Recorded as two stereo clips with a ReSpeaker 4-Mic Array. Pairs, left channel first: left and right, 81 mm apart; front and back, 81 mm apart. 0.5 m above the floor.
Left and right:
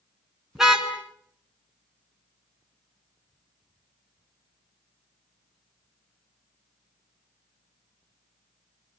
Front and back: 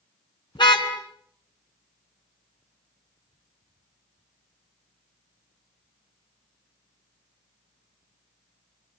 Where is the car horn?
5° right, 3 m.